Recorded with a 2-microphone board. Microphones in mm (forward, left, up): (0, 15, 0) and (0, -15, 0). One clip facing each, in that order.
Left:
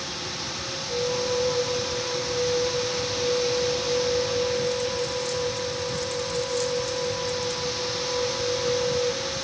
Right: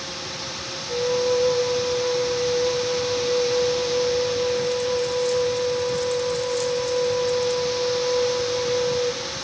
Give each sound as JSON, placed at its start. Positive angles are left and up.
{"t": 0.9, "sound": "a flute", "side_deg": -40, "distance_m": 2.5}